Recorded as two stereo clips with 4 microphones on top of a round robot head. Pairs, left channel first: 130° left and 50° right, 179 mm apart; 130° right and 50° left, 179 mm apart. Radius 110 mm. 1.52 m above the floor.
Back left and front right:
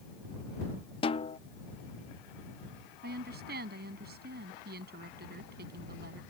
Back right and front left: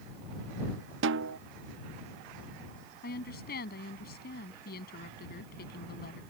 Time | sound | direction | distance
1.0 | a snare drum | 65° left | ?
3.0 | a woman speaking | 90° right | ?